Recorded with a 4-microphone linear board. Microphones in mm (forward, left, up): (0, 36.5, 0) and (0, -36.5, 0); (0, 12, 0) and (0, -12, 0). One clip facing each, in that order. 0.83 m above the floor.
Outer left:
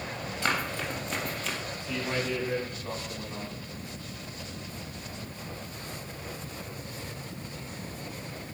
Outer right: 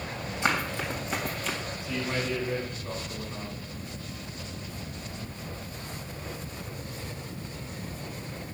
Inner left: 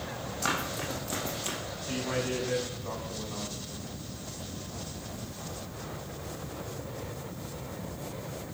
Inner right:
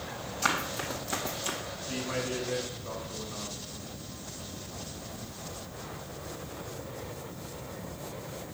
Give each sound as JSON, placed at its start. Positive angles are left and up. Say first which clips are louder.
{"t": 0.4, "sound": "running footsteps", "louder": "outer right 2 dB, inner right 2 dB", "side_deg": -15, "distance_m": 2.5}
{"t": 1.8, "sound": "a man speaking", "louder": "even, inner left 2 dB", "side_deg": 65, "distance_m": 6.0}